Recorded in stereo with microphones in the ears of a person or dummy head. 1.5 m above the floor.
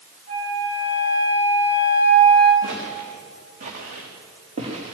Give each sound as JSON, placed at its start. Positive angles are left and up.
{"t": 0.3, "sound": "a flute", "side_deg": -35, "distance_m": 8.5}
{"t": 2.6, "sound": "footsteps", "side_deg": -50, "distance_m": 5.5}